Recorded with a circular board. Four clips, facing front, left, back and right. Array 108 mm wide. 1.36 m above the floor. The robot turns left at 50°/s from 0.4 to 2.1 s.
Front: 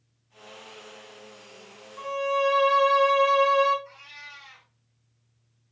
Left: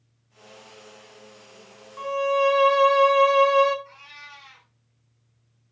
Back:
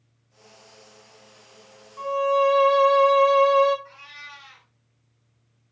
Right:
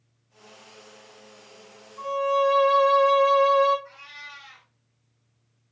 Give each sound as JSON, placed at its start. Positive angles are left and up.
{"t": 2.0, "sound": "a violin", "azimuth_deg": 100, "distance_m": 0.6}
{"t": 3.9, "sound": "a cat meowing", "azimuth_deg": -145, "distance_m": 1.8}